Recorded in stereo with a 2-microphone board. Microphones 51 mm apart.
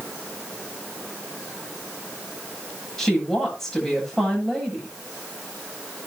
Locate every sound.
3.0 s a woman speaking: 10° left (ahead or behind), 10 m